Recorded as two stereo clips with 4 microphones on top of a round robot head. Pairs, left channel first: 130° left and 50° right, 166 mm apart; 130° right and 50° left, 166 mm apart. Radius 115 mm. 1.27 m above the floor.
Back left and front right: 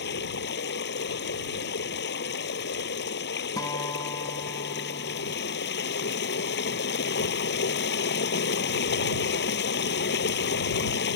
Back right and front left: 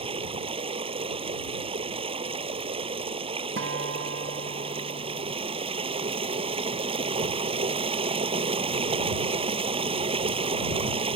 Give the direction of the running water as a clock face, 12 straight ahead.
8 o'clock.